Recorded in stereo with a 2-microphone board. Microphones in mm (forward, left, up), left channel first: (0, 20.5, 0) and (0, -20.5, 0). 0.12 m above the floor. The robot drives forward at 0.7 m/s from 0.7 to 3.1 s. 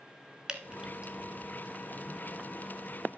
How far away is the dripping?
About 0.7 m.